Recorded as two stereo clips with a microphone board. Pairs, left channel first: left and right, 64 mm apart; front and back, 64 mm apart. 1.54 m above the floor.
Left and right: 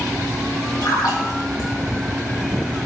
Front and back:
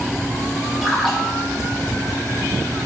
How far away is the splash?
About 1.7 m.